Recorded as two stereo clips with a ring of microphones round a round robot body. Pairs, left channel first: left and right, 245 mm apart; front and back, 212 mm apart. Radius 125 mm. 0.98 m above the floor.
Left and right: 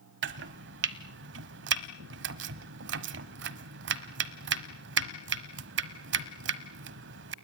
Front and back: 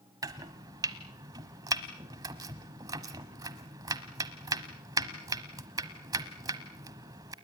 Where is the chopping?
110° right, 1.0 m.